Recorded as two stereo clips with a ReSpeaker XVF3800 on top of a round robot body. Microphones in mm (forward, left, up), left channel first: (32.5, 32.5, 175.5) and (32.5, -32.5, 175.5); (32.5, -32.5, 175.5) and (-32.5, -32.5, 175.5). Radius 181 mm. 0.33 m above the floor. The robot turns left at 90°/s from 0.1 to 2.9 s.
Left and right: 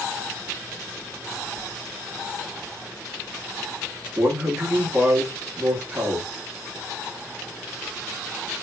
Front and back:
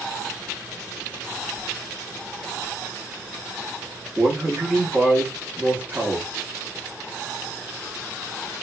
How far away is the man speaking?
About 1.1 m.